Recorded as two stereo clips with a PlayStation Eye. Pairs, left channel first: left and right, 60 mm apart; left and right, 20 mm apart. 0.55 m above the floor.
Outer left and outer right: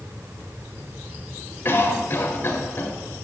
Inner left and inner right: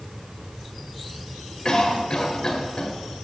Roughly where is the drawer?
No drawer in this recording.